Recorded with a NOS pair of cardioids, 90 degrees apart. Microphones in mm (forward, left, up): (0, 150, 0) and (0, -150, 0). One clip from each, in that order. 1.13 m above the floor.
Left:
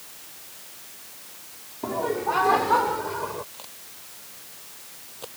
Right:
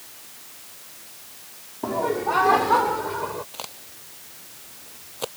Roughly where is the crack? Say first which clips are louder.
Right 6 dB; ahead right.